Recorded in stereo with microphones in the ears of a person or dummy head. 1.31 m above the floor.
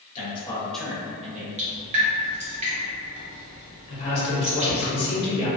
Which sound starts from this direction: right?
Dripping, at 1.6 s.